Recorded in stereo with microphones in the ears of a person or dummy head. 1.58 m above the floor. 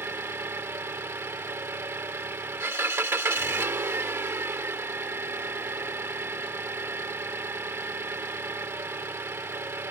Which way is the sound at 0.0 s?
20° right (ahead or behind).